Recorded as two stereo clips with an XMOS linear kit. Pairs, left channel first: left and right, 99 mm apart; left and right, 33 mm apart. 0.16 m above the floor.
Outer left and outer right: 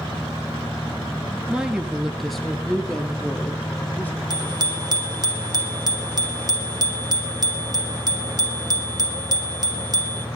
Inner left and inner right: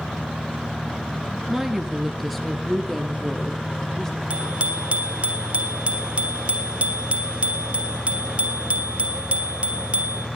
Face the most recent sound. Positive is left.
turn(degrees=-45)  # may be behind; listen again after turning